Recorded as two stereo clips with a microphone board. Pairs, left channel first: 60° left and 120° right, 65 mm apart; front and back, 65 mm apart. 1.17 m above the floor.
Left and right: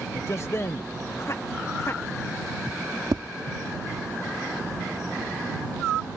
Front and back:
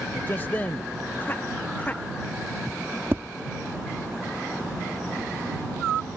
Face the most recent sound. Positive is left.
turn(degrees=-120)